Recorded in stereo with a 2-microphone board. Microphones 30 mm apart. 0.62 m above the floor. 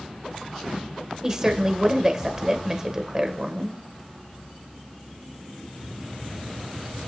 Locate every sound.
1.2 s a woman speaking: 25° right (ahead or behind), 2 m